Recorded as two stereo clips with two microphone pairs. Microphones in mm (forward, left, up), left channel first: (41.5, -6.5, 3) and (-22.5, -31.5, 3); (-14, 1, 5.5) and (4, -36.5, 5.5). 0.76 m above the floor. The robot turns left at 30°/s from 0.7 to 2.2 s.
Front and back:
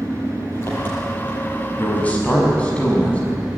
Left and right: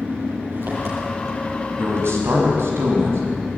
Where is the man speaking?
40° right, 6 m; by 3.2 s 50° right, 6 m.